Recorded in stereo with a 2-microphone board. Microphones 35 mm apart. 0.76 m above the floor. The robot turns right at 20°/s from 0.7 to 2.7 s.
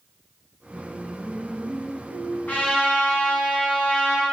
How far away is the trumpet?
About 6 m.